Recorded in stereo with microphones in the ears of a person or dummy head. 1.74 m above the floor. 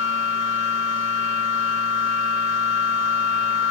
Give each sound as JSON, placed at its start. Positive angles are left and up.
{"t": 0.0, "sound": "a machine running", "side_deg": -35, "distance_m": 1.7}